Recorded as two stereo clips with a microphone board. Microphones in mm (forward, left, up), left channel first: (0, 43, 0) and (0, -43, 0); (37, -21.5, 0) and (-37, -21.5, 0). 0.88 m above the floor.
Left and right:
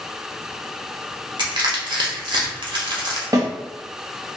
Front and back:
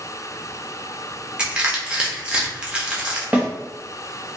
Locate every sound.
1.4 s crushing: 105° right, 0.8 m
3.3 s a snare drum: 110° right, 0.8 m